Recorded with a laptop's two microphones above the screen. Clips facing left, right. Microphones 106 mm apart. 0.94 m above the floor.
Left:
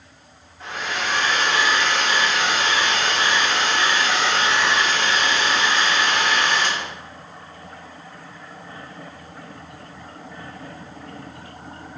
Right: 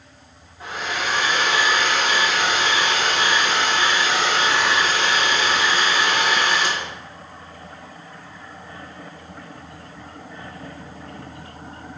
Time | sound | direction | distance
0.6 | a hair dryer | 15° right (ahead or behind) | 0.8 m